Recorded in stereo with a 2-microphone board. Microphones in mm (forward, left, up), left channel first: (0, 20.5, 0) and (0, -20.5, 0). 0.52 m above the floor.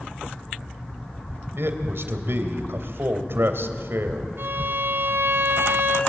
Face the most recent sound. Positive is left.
turn(degrees=-60)  # may be behind; listen again after turning